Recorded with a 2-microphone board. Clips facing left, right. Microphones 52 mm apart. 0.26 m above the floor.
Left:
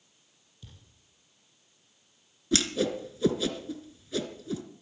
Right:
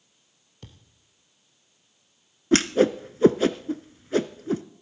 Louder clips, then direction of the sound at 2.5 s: Right 8 dB; 45° right (ahead or behind).